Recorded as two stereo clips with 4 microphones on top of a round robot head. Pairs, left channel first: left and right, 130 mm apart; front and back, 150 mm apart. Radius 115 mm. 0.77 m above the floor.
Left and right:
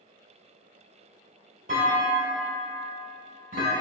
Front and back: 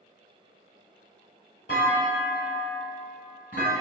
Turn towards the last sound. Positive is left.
turn(degrees=-50)